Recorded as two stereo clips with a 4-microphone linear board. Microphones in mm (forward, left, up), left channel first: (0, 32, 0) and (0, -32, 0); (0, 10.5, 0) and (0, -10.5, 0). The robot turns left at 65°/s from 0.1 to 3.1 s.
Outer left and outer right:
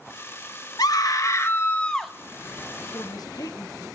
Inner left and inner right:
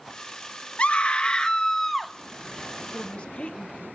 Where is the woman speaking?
65° left (ahead or behind), 1.5 m; by 3.9 s 75° left (ahead or behind), 1.5 m.